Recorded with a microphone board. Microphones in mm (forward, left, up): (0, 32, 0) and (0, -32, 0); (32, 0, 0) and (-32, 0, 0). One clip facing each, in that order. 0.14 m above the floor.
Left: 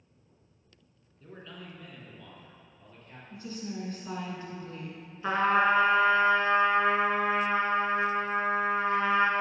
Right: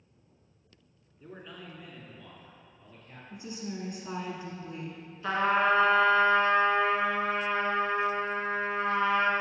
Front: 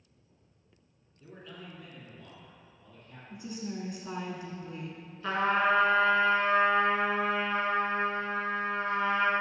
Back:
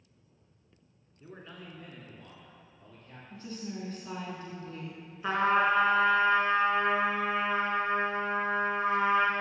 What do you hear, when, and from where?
1.2 s a man speaking: 150° right, 1.2 m; by 3.2 s straight behind, 2.0 m
3.3 s a woman speaking: 50° right, 1.0 m
5.2 s a trumpet: 130° left, 1.3 m